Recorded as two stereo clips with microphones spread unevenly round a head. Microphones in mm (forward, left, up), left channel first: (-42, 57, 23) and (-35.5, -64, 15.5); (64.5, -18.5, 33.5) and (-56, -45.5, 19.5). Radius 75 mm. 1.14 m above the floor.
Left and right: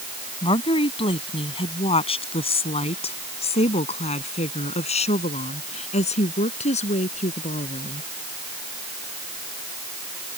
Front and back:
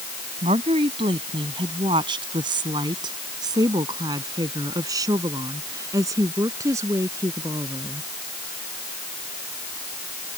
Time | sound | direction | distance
0.4 | a woman speaking | 140° left | ?